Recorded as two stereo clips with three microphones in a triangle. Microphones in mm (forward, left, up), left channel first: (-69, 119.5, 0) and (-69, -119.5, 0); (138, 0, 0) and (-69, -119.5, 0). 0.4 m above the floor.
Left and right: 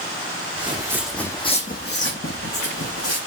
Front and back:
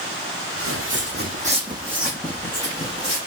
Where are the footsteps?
155° right, 1.0 m; by 3.2 s 95° left, 1.5 m.